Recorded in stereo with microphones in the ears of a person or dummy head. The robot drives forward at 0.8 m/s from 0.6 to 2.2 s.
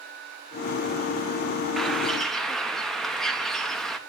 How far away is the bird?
About 0.6 m.